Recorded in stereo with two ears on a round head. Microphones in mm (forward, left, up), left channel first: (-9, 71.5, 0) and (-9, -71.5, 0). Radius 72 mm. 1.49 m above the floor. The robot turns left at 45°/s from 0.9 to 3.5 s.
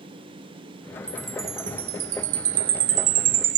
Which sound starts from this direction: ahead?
A chime, at 1.1 s.